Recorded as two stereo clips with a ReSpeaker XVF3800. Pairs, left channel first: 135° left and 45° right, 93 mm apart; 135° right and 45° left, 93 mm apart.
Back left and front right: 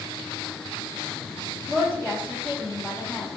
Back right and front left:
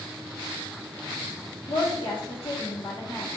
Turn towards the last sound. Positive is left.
turn(degrees=-160)